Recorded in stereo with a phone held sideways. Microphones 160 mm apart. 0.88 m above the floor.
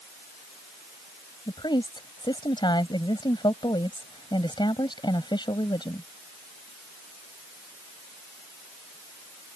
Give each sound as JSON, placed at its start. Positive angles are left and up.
{"t": 1.5, "sound": "a woman speaking", "side_deg": 30}